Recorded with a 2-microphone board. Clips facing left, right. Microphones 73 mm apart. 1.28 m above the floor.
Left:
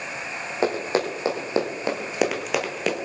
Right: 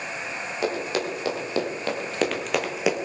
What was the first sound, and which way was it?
Running footsteps, 35° left (ahead or behind).